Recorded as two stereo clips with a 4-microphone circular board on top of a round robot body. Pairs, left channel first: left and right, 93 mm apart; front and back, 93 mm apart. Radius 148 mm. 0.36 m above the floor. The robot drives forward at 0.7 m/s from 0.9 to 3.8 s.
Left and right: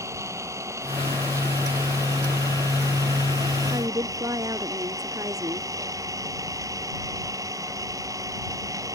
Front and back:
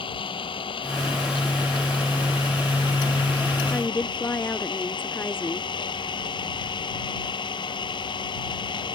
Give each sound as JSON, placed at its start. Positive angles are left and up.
{"t": 0.0, "sound": "an engine running", "azimuth_deg": -30}
{"t": 3.7, "sound": "a woman speaking", "azimuth_deg": -55}